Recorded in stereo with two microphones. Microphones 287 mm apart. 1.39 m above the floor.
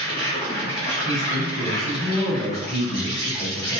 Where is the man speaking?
Centre (ahead or behind), 1.1 m.